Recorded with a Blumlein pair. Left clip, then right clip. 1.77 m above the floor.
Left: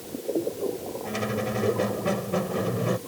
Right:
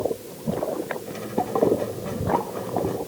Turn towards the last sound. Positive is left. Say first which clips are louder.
# right 1 dB
turn(degrees=20)